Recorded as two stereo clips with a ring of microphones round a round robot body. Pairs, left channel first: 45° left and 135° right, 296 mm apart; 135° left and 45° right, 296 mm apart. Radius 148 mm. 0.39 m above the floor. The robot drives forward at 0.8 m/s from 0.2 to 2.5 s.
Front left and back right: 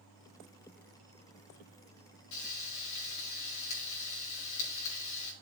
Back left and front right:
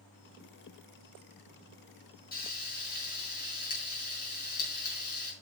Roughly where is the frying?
Left.